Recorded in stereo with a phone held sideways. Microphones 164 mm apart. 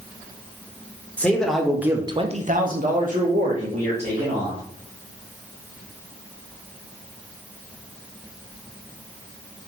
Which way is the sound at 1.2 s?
10° left (ahead or behind).